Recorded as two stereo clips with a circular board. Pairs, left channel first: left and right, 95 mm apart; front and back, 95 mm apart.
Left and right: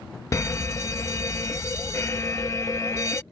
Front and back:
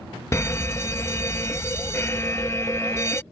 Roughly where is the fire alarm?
Ahead left.